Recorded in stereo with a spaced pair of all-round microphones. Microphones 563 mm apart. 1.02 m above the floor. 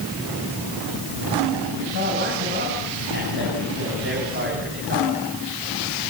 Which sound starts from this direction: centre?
A man speaking, at 1.9 s.